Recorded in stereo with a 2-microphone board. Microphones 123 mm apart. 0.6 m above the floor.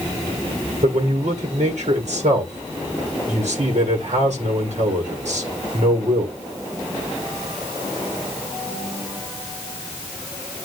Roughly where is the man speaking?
Right.